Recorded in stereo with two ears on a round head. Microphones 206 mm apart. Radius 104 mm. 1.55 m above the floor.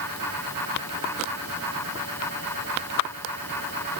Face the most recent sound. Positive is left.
No sound to turn to.